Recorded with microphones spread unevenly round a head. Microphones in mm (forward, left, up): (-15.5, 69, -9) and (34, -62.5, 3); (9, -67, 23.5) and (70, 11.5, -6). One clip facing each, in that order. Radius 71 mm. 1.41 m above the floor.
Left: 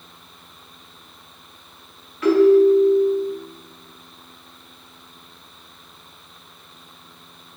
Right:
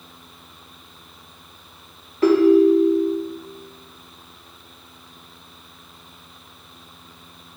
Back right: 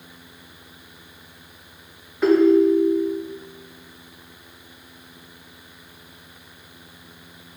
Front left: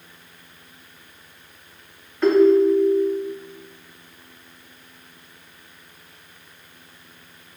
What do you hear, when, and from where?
2.2 s a ringtone: 75° right, 0.6 m